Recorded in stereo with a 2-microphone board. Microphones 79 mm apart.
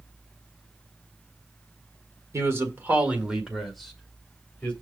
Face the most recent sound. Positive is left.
turn(degrees=20)  # may be behind; listen again after turning